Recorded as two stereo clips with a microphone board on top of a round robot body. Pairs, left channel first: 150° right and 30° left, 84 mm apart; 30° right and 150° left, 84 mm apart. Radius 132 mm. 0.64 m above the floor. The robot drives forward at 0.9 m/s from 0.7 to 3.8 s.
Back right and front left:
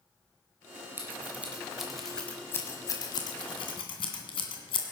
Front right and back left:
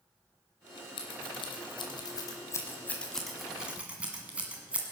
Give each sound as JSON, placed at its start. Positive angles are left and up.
{"t": 1.0, "sound": "scissors", "azimuth_deg": -35, "distance_m": 1.9}